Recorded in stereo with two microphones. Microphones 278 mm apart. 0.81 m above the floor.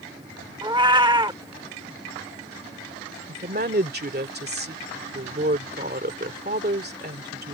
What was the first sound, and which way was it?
A cat meowing, 15° right (ahead or behind).